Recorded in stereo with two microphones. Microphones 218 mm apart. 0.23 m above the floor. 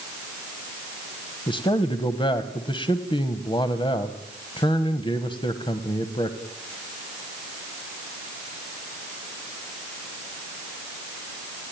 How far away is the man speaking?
About 1.2 m.